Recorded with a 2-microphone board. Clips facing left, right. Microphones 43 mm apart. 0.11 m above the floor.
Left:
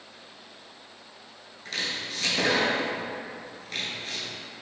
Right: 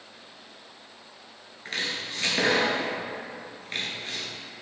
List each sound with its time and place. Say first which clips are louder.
1.6 s chopping: right 1 dB; 35° right (ahead or behind), 0.7 m